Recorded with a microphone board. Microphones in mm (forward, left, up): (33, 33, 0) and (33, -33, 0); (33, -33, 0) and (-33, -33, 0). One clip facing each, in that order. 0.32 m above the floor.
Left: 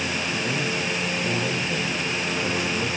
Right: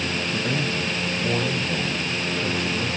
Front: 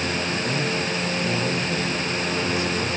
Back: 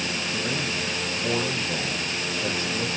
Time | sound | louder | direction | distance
0.3 | a man speaking | right 1 dB, front 4 dB | 105° right | 1.6 m